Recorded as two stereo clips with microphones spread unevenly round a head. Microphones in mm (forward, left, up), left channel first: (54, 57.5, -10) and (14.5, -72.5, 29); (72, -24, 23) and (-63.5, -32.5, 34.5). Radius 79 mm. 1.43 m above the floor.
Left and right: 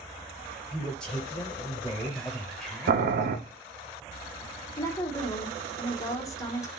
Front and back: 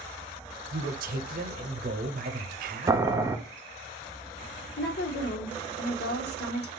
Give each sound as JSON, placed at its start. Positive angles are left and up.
{"t": 0.7, "sound": "a man speaking", "azimuth_deg": 155, "distance_m": 0.6}
{"t": 2.9, "sound": "boiling", "azimuth_deg": -110, "distance_m": 0.6}
{"t": 4.8, "sound": "a woman speaking", "azimuth_deg": 0, "distance_m": 1.0}